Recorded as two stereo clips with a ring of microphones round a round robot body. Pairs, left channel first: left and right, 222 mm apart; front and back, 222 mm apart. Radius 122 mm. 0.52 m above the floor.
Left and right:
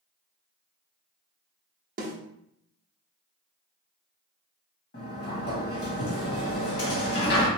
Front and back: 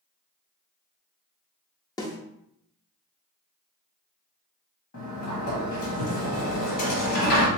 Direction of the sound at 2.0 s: 65° right.